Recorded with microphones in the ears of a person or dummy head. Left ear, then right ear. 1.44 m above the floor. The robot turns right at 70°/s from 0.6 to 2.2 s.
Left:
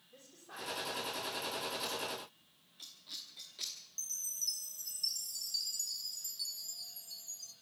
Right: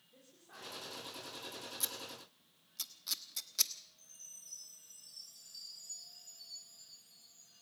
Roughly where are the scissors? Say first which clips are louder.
Left 5 dB; right.